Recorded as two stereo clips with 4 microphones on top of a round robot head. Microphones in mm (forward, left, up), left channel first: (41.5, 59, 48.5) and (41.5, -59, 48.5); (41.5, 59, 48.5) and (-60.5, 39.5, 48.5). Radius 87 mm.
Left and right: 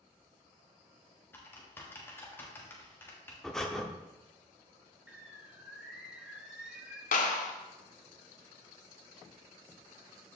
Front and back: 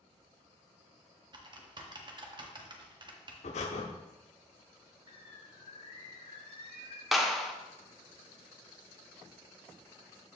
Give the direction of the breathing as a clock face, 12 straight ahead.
12 o'clock.